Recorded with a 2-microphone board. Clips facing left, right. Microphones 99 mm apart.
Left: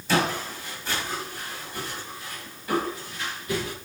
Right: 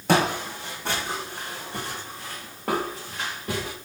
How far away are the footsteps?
About 2.5 m.